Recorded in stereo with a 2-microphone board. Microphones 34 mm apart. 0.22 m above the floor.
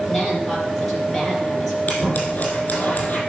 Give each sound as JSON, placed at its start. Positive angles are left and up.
{"t": 0.1, "sound": "a woman speaking", "side_deg": -5, "distance_m": 6.5}
{"t": 1.9, "sound": "scissors", "side_deg": 45, "distance_m": 4.5}